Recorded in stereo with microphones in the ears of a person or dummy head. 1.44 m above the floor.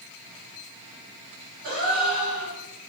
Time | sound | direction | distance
1.6 | a gasp | 60° right (ahead or behind) | 1.4 m